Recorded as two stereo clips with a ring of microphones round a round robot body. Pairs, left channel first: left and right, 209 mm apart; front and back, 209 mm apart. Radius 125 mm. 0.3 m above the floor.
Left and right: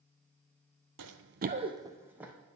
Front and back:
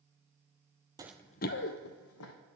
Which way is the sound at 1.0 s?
110° right.